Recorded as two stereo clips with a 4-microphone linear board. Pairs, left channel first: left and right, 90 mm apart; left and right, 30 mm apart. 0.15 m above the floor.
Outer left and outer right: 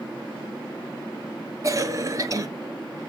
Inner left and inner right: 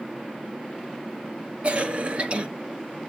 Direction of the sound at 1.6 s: 40° right (ahead or behind).